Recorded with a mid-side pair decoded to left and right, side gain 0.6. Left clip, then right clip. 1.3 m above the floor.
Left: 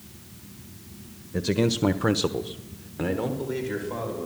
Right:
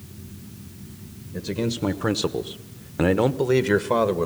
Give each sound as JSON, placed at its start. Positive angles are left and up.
{"t": 1.3, "sound": "a man speaking", "azimuth_deg": 30, "distance_m": 1.4}